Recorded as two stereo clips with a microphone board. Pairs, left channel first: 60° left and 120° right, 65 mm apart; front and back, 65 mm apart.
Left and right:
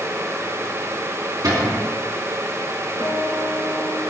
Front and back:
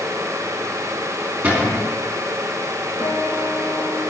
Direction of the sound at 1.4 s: 115° right.